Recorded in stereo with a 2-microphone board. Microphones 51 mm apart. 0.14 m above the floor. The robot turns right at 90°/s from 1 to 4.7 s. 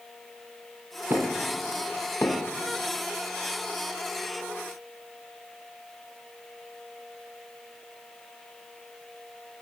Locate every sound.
1.1 s knocking: 55° right (ahead or behind), 3.5 m; by 2.5 s 65° left (ahead or behind), 3.5 m